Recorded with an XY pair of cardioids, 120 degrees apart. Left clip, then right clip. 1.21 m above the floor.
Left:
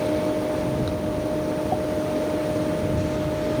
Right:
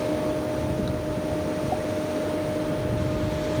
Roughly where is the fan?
Ahead.